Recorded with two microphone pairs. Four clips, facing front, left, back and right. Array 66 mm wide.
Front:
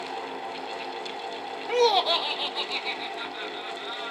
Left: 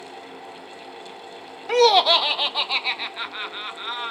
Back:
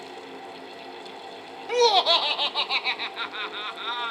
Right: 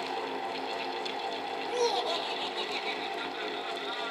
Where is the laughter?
80° left, 0.5 m; by 4.1 s 140° left, 1.6 m.